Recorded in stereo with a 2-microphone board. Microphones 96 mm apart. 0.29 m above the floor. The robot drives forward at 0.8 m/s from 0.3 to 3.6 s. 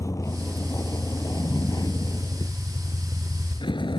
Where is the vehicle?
35° left (ahead or behind); by 4.0 s 55° left (ahead or behind).